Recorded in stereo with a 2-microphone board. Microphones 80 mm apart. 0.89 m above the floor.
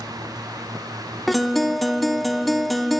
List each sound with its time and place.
1.3 s a guitar: centre (ahead or behind), 0.7 m